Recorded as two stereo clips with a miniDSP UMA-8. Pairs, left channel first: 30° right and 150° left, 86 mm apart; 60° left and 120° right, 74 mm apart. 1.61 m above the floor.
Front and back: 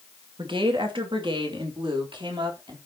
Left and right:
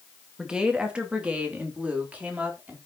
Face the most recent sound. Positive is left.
turn(degrees=170)